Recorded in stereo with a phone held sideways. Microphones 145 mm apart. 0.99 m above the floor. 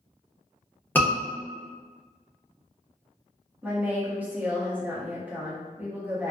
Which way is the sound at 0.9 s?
15° left (ahead or behind).